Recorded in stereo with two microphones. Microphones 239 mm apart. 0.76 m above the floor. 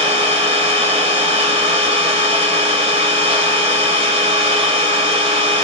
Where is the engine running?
25° right (ahead or behind), 1.1 m.